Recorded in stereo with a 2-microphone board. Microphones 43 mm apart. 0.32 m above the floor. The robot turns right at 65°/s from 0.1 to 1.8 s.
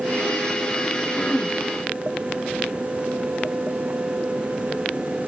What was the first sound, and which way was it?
Throat clearing, 30° left (ahead or behind).